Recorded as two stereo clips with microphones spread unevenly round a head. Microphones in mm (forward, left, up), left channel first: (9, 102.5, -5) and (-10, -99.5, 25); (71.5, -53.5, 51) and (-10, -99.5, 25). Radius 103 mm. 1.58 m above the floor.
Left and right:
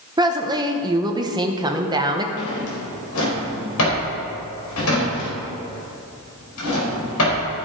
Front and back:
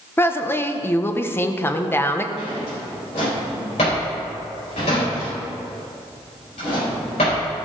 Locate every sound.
0.2 s a woman speaking: 30° right, 1.0 m
2.4 s a drawer: 70° left, 3.5 m